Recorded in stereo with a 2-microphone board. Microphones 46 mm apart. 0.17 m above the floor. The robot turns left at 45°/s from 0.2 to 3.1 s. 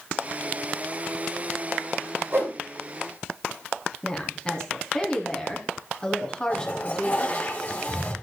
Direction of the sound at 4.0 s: 20° left (ahead or behind).